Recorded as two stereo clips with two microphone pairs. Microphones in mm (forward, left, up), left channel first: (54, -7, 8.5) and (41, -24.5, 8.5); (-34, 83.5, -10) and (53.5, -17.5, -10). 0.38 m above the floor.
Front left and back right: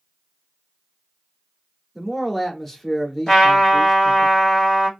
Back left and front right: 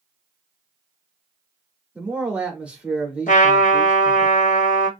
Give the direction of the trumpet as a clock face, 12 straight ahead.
8 o'clock.